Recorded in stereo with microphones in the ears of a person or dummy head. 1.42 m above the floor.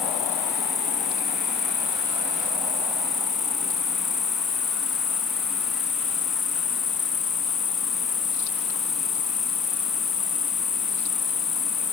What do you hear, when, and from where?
0.0 s an insect: centre (ahead or behind)